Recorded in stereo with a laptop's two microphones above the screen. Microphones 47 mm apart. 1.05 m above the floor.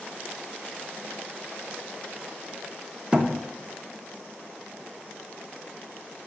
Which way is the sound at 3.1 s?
30° right (ahead or behind).